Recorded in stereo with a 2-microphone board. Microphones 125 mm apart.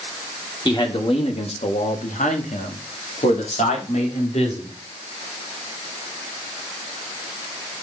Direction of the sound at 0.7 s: 35° left (ahead or behind).